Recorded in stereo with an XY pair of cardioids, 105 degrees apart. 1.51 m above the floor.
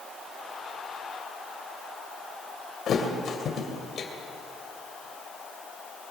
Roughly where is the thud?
Ahead left.